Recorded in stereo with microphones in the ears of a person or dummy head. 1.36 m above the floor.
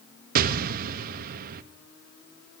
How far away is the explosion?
About 1.0 m.